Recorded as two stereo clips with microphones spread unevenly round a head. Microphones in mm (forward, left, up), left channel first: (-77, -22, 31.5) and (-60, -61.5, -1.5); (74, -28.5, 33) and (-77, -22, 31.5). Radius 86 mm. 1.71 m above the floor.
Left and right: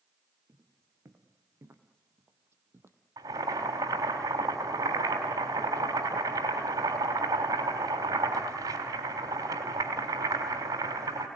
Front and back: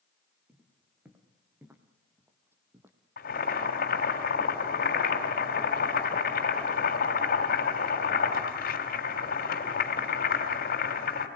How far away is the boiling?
About 3.5 m.